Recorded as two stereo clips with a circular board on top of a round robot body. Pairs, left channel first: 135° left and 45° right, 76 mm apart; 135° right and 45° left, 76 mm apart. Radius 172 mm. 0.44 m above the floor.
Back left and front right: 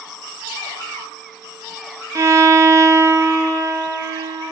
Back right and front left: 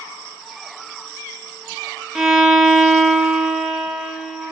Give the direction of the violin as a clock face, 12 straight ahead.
1 o'clock.